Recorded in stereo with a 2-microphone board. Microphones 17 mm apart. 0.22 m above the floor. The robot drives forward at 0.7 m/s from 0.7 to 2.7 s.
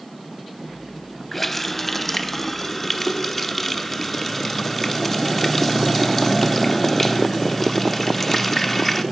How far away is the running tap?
About 0.7 m.